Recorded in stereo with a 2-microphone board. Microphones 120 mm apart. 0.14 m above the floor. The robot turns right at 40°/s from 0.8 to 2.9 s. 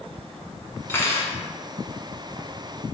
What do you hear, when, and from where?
0.9 s cutlery clinking: 20° left (ahead or behind), 0.8 m; by 1.4 s 25° left (ahead or behind), 0.8 m